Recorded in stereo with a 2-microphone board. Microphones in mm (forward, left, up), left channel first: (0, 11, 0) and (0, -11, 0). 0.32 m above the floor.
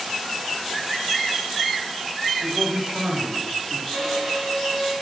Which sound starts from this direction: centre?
A violin, at 3.9 s.